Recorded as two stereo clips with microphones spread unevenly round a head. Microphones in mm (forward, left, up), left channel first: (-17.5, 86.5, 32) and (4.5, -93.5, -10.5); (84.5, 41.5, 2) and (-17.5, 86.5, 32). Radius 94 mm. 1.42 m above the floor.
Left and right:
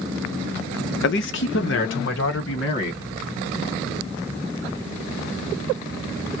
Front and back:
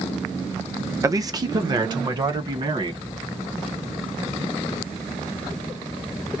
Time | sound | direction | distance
1.0 | a man speaking | 100° left | 0.8 m